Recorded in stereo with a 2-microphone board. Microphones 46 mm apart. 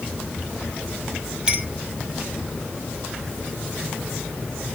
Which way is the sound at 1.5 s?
20° right (ahead or behind).